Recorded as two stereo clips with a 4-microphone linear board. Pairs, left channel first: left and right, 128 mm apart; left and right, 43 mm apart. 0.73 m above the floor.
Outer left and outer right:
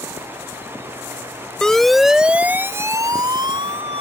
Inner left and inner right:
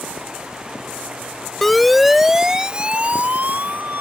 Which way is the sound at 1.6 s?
5° left (ahead or behind).